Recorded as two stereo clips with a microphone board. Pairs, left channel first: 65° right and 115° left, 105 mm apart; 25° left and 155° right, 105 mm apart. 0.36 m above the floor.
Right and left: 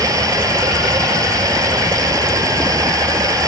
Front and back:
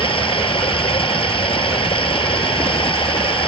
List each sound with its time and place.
0.0 s running water: 55° left